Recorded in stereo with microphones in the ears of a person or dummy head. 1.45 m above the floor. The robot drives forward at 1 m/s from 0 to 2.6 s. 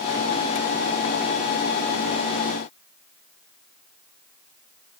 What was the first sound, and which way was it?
Only background noise.